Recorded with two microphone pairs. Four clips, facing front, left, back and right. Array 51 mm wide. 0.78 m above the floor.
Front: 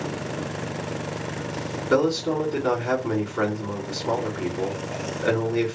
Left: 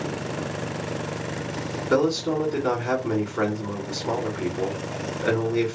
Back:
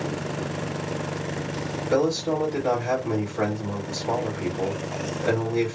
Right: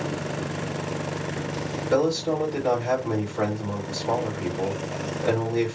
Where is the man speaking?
30° left, 2 m.